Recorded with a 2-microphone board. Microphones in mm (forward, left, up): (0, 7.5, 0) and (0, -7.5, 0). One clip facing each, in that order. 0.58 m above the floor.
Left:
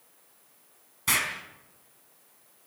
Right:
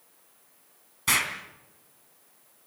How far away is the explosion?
About 4 m.